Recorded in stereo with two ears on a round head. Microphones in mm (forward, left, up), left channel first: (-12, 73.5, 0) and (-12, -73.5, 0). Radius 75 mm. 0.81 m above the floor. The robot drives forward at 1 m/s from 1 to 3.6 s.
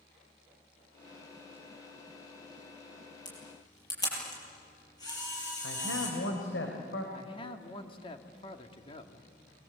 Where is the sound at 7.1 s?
35° left (ahead or behind), 2 m.